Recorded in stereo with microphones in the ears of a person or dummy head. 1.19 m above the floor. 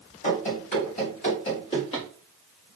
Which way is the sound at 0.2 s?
30° left (ahead or behind).